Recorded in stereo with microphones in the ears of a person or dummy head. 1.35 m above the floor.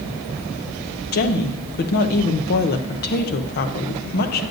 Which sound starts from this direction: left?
A woman speaking, at 1.1 s.